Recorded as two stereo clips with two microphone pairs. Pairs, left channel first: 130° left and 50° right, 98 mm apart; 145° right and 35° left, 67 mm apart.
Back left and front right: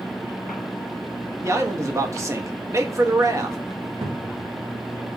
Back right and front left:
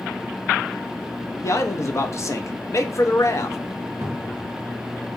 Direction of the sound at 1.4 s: 105° right.